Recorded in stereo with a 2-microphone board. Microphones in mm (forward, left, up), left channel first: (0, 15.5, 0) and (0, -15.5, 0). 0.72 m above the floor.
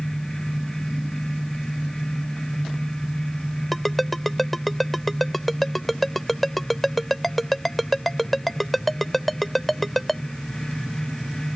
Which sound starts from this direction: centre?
A ringtone, at 3.7 s.